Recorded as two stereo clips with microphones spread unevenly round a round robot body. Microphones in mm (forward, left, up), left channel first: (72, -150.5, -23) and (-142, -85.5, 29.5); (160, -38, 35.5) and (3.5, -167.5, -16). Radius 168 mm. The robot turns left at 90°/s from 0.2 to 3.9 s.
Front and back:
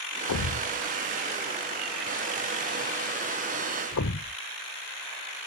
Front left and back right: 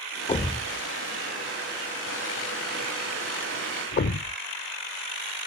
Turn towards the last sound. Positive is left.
turn(degrees=25)